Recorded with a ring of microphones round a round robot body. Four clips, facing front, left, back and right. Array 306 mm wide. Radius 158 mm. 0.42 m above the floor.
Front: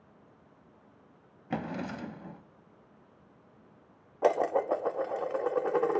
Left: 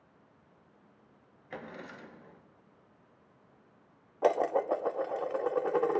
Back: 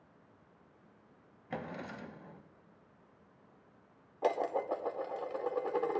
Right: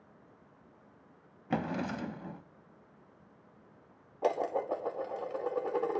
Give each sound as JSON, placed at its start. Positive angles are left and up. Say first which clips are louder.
{"t": 1.5, "sound": "a drawer", "louder": "right 10 dB, front 7 dB", "azimuth_deg": -60, "distance_m": 0.7}
{"t": 4.2, "sound": "dishes clattering", "louder": "left 4 dB, front 6 dB", "azimuth_deg": 30, "distance_m": 0.7}